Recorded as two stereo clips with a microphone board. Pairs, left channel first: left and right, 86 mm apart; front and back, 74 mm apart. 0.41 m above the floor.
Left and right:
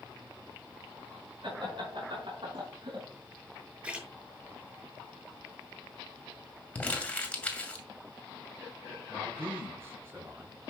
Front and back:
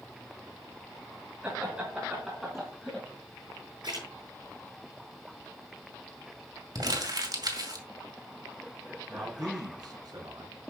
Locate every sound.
1.4 s laughter: 105° right, 5.5 m; by 3.0 s 90° right, 3.5 m
3.8 s a splash: 165° right, 7 m
6.8 s crumpling: 165° left, 2 m
9.1 s a man speaking: 150° right, 4 m